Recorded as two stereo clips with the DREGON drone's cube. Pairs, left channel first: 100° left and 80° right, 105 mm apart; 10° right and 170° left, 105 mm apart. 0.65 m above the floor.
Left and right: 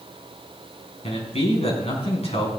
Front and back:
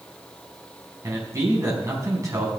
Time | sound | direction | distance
1.0 | a man speaking | 110° left | 4.5 m